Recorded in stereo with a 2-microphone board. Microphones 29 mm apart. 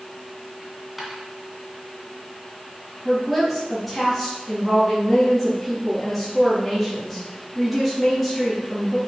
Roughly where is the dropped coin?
Centre.